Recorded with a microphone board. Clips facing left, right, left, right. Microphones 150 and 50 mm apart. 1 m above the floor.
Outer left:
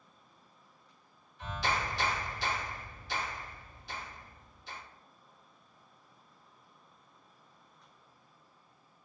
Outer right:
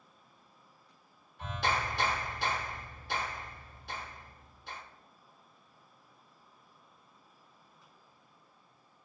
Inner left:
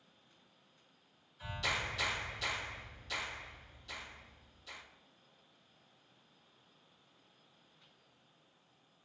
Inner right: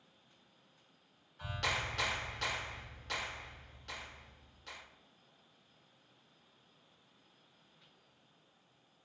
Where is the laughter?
No laughter in this recording.